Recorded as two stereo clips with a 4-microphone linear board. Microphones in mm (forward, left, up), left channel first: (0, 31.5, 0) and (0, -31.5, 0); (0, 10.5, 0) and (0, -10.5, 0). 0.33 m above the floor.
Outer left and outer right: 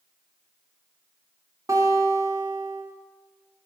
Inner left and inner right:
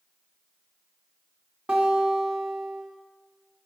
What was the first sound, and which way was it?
A guitar, 60° right (ahead or behind).